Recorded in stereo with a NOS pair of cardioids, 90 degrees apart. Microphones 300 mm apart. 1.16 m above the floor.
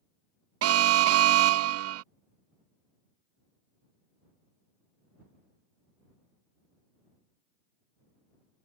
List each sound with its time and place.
0.6 s an alarm: 55° right